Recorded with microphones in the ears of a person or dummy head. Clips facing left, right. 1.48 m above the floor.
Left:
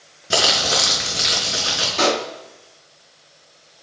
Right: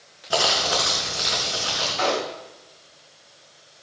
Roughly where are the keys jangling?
No keys jangling in this recording.